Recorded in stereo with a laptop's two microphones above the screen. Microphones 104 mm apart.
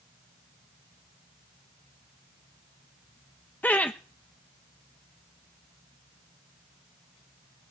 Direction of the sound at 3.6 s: 15° left (ahead or behind).